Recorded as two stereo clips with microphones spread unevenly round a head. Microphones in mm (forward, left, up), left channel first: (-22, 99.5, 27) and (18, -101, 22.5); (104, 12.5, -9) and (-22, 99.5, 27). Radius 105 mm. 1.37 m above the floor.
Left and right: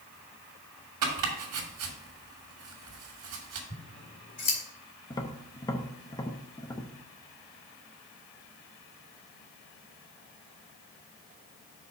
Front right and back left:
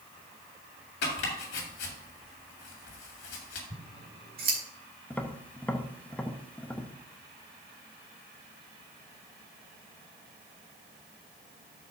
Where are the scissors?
155° left, 2 m.